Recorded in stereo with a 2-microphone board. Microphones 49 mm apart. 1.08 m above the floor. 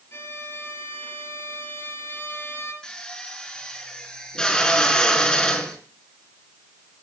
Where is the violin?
60° left (ahead or behind), 5 m.